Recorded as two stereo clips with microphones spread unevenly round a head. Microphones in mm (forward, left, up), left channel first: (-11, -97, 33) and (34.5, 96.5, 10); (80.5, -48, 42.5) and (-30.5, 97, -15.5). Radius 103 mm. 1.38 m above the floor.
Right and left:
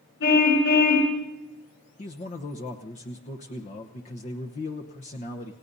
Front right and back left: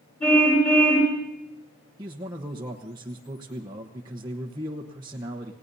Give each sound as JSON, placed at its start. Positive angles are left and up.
{"t": 0.2, "sound": "a car horn", "azimuth_deg": -135, "distance_m": 7.0}
{"t": 2.0, "sound": "a man speaking", "azimuth_deg": -160, "distance_m": 1.0}